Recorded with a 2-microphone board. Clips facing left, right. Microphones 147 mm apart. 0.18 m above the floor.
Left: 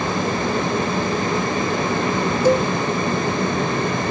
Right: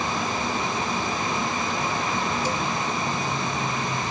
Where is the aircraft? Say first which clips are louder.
Left 6 dB; 60° left (ahead or behind).